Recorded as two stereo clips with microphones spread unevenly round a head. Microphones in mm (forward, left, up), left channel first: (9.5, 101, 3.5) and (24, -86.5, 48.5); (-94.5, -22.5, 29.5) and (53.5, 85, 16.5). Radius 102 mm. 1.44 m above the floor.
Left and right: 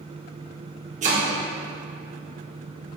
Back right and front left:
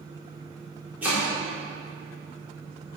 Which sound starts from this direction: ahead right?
Chopping, at 1.0 s.